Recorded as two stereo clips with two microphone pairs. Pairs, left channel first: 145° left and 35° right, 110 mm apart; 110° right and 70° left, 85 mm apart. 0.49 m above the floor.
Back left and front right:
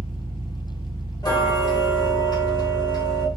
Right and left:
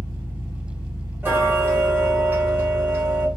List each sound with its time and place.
0.0 s an engine running: 100° left, 1.4 m
1.2 s ticking: 120° left, 1.0 m